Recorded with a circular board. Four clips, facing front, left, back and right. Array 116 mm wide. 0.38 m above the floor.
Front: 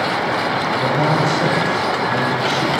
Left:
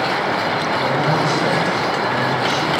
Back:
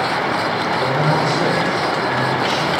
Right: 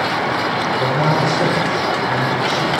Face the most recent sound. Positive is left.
turn(degrees=-70)